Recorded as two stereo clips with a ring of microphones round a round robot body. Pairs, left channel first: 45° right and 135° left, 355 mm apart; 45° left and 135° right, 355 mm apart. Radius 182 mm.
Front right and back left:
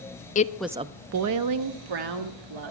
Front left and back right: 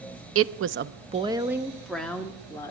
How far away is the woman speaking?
About 0.6 m.